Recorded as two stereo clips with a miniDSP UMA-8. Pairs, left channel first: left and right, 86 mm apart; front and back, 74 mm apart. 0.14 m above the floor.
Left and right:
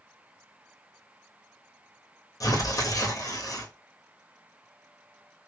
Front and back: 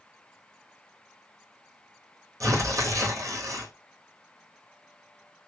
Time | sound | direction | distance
2.4 | tearing paper | 135° left | 1.0 m